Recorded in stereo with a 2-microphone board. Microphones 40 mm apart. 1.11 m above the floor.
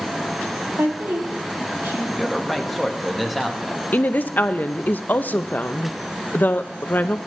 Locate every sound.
0.8 s a woman speaking: 80° right, 2.5 m
2.1 s a man speaking: centre (ahead or behind), 1.1 m
3.9 s a woman speaking: 45° left (ahead or behind), 0.6 m